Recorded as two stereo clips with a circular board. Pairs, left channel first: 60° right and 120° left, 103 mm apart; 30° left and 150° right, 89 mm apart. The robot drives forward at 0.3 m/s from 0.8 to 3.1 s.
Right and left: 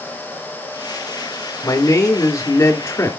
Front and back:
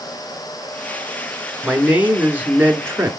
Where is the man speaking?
80° right, 1.5 m; by 3.1 s 105° right, 1.5 m.